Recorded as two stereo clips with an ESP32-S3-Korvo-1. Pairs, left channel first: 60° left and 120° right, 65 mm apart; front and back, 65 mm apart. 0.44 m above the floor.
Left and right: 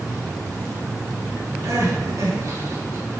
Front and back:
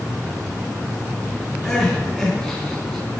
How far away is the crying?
About 4 m.